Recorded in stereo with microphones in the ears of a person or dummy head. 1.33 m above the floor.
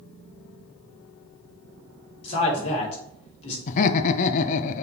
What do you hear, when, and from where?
2.2 s a man speaking: 35° left (ahead or behind), 2.5 m
3.7 s laughter: 40° left (ahead or behind), 0.6 m